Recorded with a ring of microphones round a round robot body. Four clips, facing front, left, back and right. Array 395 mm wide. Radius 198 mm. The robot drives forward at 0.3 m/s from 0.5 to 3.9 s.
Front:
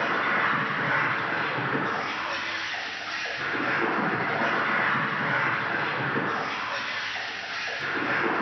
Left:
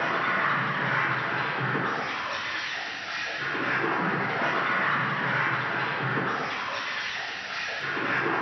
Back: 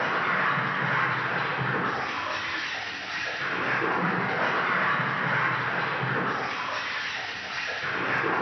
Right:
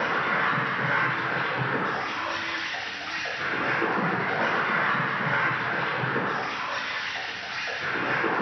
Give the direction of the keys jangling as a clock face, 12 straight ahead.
No keys jangling in this recording.